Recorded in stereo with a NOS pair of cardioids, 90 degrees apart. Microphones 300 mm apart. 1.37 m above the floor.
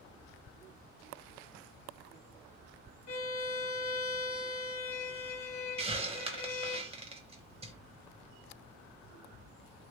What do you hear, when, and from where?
3.1 s a violin: 50° left, 1.3 m
5.8 s a hiss: 20° right, 1.0 m